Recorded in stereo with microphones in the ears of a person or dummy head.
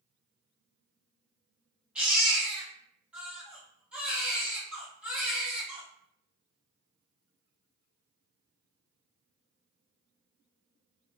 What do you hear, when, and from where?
1.9 s a baby crying: 5° right (ahead or behind), 0.9 m